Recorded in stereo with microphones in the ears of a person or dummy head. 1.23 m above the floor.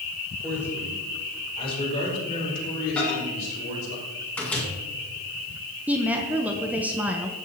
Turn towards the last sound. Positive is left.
turn(degrees=-5)  # may be behind; listen again after turning